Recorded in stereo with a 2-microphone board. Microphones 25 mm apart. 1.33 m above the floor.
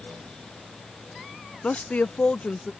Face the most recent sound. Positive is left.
turn(degrees=55)  # may be behind; listen again after turning